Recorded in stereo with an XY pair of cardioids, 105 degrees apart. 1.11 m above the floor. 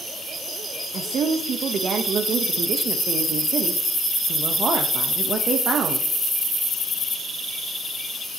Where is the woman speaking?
55° right, 0.8 m.